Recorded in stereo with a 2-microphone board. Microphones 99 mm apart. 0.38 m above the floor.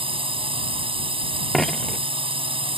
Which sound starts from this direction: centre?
A dropped coin, at 1.5 s.